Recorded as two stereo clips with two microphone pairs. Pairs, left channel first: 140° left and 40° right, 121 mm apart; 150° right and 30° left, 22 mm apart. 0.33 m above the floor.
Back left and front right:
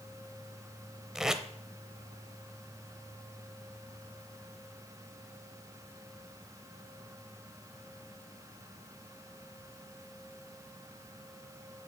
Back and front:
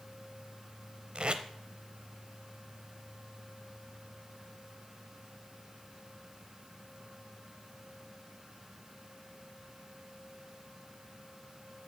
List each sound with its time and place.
1.1 s tape being pulled: 45° left, 0.7 m